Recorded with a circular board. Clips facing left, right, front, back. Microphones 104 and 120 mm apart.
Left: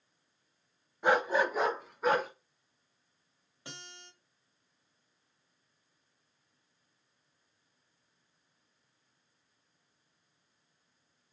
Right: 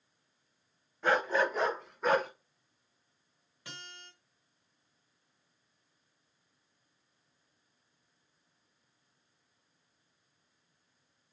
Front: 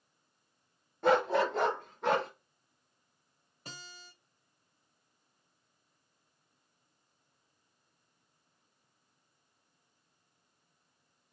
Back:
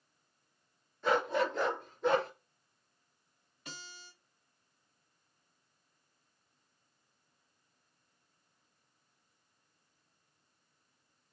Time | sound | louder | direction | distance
1.0 | a dog barking | left 1 dB, front 4 dB | 15° left | 0.7 m
3.6 | a guitar | even, even | 35° left | 1.8 m